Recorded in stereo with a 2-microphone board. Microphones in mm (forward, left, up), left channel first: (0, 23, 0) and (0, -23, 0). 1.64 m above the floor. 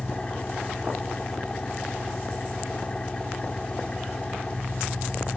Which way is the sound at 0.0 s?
20° left (ahead or behind).